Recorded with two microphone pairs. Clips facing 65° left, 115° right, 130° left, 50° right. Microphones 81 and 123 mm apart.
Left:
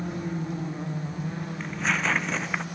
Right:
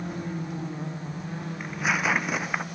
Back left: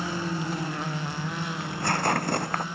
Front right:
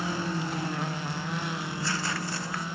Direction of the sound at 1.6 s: 165° left.